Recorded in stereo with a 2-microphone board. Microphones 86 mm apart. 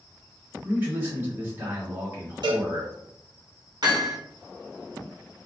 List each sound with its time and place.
0.6 s a man speaking: 25° right (ahead or behind), 1.4 m
2.4 s a cowbell: 65° right (ahead or behind), 1.0 m
3.8 s hammering: 55° right (ahead or behind), 1.2 m